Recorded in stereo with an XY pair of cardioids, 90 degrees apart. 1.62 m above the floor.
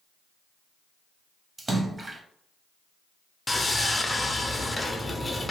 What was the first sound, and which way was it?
A splash, 25° right.